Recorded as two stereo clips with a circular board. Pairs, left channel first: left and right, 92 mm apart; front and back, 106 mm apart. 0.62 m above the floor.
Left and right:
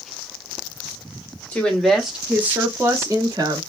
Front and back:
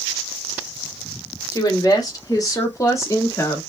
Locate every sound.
1.5 s a woman speaking: 25° left, 1.0 m; by 3.6 s 60° right, 1.4 m